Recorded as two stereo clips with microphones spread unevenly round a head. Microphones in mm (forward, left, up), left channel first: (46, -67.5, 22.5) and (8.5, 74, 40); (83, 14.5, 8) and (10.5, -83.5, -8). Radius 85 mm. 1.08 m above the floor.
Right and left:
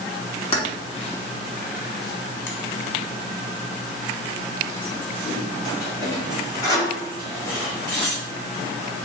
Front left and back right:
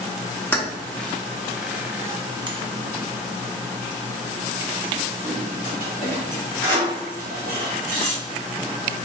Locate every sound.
0.5 s keys jangling: 20° right, 1.4 m; by 8.1 s 155° right, 3 m